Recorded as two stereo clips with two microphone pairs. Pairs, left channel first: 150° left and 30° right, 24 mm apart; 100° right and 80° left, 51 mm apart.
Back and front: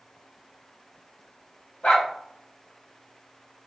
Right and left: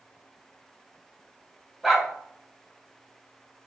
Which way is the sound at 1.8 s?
170° left.